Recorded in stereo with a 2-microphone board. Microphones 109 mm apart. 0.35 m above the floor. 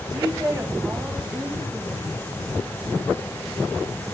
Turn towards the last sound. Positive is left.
turn(degrees=0)  # may be behind; listen again after turning